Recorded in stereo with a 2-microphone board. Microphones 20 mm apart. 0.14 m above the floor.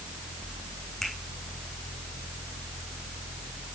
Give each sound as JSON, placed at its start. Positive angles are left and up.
{"t": 1.0, "sound": "a finger snap", "side_deg": 20, "distance_m": 8.5}